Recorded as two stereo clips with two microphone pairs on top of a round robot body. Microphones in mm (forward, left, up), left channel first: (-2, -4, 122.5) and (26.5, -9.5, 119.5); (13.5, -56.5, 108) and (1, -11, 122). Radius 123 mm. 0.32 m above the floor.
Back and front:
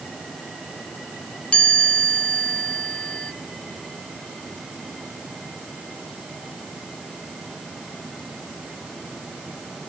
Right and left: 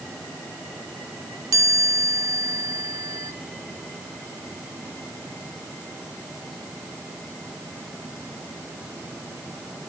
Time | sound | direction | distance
1.5 | a chime | 115° left | 1.3 m